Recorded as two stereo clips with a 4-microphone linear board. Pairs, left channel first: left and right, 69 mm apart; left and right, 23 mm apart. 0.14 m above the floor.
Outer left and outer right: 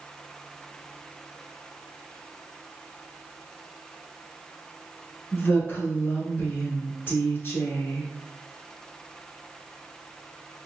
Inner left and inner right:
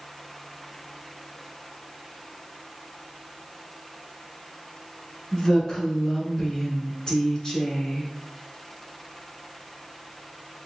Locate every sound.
5.3 s a woman speaking: 30° left (ahead or behind), 1.2 m